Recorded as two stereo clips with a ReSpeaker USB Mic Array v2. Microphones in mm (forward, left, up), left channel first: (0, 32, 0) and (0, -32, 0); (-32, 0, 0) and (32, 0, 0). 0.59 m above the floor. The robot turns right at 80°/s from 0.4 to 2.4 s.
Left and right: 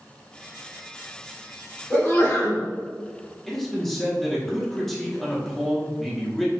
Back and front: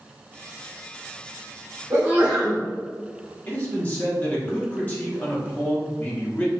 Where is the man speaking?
170° left, 1.1 m.